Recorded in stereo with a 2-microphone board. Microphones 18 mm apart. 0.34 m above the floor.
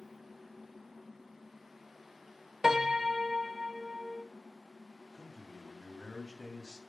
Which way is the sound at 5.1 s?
35° right (ahead or behind).